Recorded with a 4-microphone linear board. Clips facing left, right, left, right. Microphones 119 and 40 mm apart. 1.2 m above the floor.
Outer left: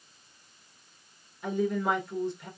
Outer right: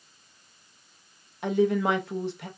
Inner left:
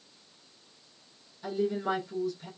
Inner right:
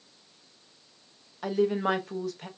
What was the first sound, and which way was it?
A woman speaking, 85° right.